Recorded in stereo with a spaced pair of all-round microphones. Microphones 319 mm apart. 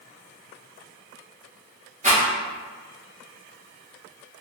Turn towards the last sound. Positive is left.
turn(degrees=-25)  # may be behind; listen again after turning